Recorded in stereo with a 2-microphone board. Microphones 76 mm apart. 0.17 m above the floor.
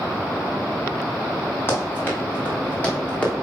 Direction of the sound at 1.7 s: 30° left (ahead or behind).